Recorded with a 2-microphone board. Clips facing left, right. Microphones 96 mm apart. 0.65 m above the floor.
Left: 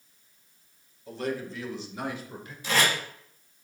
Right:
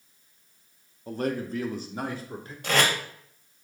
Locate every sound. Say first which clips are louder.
1.1 s a man speaking: right 3 dB; 45° right (ahead or behind), 1.1 m; by 2.5 s 35° right (ahead or behind), 1.9 m
2.6 s tape being pulled: right 2 dB; 60° right (ahead or behind), 2 m